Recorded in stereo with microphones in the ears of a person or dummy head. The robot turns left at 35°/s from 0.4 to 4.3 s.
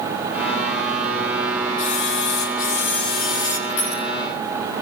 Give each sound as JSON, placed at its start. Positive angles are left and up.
{"t": 1.8, "sound": "a camera shutter", "azimuth_deg": 80, "distance_m": 3.5}
{"t": 3.7, "sound": "crushing", "side_deg": 75, "distance_m": 8.5}